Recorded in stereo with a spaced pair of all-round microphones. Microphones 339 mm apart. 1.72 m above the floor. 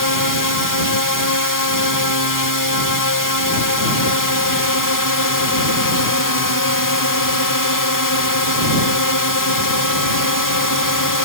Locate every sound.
0.0 s a drone: 65° left (ahead or behind)